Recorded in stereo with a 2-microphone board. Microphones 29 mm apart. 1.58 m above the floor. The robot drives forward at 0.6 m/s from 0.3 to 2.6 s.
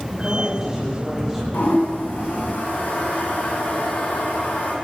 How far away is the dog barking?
I don't hear a dog barking.